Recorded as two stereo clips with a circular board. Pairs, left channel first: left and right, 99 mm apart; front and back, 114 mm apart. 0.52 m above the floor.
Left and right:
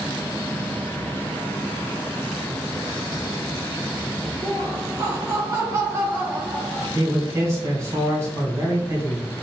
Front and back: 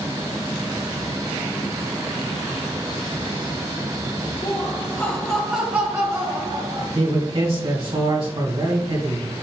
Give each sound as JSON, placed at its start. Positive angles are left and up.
{"t": 4.4, "sound": "laughter", "azimuth_deg": -30, "distance_m": 1.8}
{"t": 7.0, "sound": "a man speaking", "azimuth_deg": -150, "distance_m": 2.5}